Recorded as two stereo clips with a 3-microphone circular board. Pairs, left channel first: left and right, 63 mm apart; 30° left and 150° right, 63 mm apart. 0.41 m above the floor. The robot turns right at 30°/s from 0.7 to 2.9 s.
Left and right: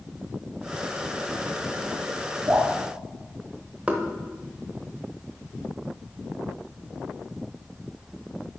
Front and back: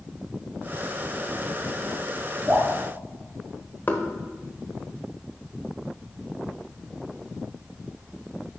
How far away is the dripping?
About 3 m.